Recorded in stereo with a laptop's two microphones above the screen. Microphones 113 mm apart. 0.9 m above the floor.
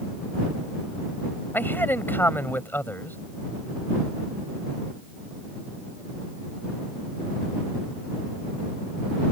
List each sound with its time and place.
1.5 s a man speaking: 20° left (ahead or behind)